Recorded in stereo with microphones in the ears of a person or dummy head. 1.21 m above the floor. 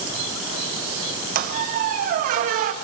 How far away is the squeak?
About 0.7 m.